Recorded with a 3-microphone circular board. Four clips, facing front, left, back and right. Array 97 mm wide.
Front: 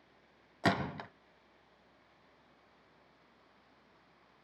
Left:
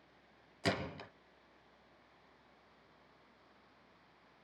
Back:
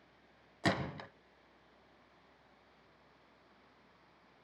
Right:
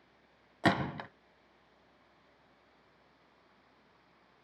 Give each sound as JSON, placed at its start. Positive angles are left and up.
{"t": 0.6, "sound": "a gunshot", "azimuth_deg": -75, "distance_m": 1.2}